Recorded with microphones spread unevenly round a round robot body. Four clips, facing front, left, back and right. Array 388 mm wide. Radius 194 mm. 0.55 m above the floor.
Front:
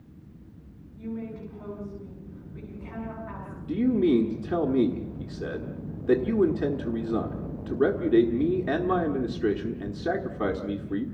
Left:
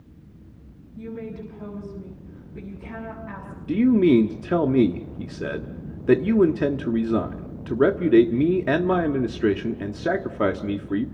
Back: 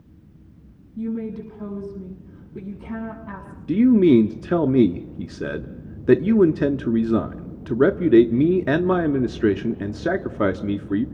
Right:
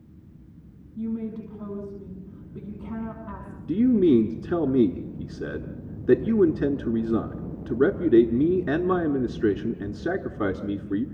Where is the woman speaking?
170° right, 5.5 m.